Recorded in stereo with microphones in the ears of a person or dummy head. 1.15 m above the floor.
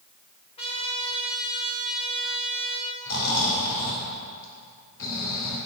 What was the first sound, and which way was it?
A trumpet, 20° left (ahead or behind).